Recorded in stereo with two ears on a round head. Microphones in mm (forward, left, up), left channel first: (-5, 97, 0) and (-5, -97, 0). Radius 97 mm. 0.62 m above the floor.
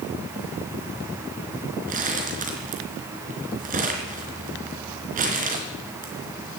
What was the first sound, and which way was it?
Crumpling, 40° right (ahead or behind).